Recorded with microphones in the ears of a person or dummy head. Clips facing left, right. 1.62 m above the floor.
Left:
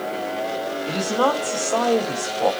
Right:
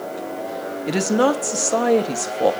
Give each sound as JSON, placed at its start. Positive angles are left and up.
{"t": 0.9, "sound": "a woman speaking", "side_deg": -25, "distance_m": 1.2}